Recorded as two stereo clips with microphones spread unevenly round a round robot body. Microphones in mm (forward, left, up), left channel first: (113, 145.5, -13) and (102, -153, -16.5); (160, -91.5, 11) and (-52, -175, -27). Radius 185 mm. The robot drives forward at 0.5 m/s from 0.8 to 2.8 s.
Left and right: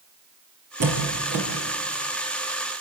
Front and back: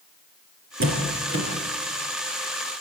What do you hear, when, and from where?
0.8 s a door slam: 130° right, 5 m; by 1.4 s 135° right, 5 m